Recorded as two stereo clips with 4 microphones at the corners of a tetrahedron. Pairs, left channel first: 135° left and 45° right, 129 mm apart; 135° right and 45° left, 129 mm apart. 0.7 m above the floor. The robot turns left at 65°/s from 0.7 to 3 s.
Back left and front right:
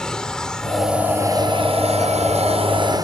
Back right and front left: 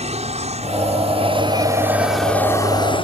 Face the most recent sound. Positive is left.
turn(degrees=-100)